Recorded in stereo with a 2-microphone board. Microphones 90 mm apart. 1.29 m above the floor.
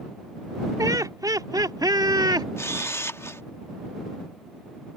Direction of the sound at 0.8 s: 40° right (ahead or behind).